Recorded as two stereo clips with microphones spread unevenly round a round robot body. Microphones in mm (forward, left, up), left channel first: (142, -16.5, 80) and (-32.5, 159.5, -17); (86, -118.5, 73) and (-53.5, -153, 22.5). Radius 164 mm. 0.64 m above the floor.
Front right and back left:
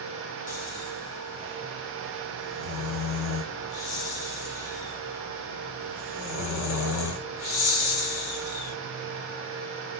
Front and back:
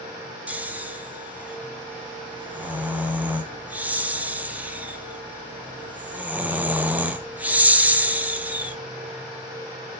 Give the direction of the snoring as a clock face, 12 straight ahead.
3 o'clock.